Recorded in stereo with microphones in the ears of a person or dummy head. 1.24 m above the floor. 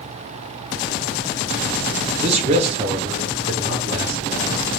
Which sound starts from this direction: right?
A man speaking, at 2.2 s.